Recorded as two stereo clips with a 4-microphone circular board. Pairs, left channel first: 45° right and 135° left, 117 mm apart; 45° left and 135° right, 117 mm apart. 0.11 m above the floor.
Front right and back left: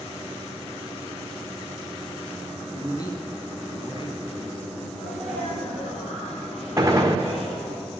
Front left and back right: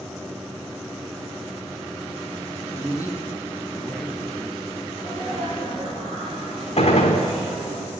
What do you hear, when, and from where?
2.7 s a man speaking: 5° left, 1.5 m; by 4.8 s 55° right, 1.9 m
4.9 s a sneeze: 45° right, 4.5 m
6.8 s a gunshot: 65° left, 1.5 m